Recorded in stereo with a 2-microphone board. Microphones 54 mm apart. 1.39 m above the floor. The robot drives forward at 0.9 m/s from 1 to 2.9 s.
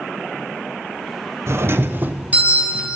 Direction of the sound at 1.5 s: 55° right (ahead or behind).